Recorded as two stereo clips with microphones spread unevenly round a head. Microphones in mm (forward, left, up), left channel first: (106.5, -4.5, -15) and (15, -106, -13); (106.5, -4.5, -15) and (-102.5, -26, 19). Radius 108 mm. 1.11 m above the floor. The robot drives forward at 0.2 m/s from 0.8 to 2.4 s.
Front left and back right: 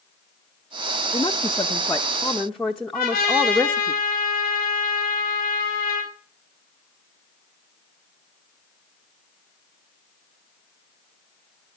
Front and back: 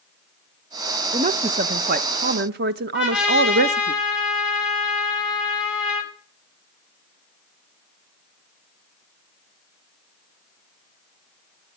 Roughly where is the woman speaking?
Behind left.